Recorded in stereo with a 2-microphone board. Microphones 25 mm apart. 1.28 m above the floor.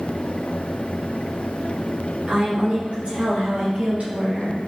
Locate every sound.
2.3 s a woman speaking: 65° right (ahead or behind), 1.6 m